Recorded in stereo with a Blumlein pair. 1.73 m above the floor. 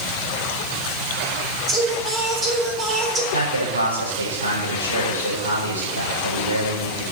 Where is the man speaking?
70° right, 6.5 m.